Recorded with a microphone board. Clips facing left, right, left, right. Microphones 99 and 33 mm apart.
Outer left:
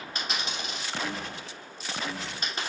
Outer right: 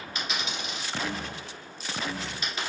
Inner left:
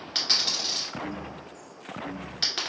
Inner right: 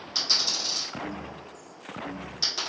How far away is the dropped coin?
About 1.5 m.